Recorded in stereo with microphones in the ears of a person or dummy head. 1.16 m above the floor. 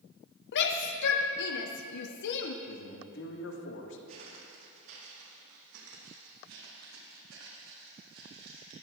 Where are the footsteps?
50° right (ahead or behind), 3.5 m; by 8.7 s 70° right (ahead or behind), 5.5 m.